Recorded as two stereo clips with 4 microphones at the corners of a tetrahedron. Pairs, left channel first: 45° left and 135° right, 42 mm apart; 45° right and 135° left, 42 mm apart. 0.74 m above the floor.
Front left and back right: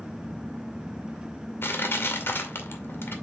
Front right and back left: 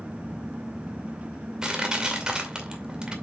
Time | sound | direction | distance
1.6 | crushing | 60° left | 2.5 m